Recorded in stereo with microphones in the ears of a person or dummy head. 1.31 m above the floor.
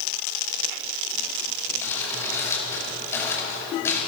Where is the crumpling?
10° left (ahead or behind), 5.5 m.